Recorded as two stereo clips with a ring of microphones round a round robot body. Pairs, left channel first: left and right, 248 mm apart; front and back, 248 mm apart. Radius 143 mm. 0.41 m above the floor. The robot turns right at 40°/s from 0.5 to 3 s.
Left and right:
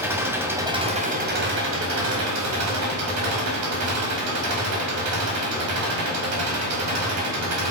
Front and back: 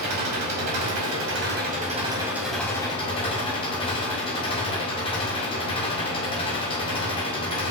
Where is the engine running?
170° right, 2 m; by 7.7 s 70° right, 2 m.